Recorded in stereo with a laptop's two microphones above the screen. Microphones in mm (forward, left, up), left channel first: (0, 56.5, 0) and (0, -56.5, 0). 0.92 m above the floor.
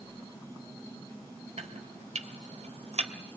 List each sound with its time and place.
1.6 s chopping: 85° right, 2.5 m